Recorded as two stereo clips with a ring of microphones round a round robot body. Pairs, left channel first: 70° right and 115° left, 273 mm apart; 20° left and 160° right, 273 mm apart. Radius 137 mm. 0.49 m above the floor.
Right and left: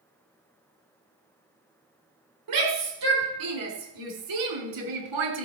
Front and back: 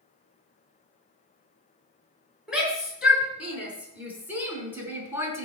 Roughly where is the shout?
Behind left.